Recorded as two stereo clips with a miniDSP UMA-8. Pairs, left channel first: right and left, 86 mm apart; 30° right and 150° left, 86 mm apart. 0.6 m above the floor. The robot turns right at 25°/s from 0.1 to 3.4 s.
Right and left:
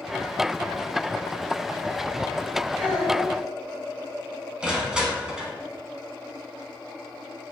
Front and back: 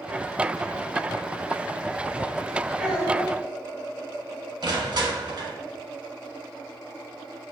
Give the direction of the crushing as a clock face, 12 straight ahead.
6 o'clock.